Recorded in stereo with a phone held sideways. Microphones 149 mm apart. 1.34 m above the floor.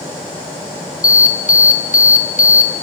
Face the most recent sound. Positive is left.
turn(degrees=65)  # may be behind; listen again after turning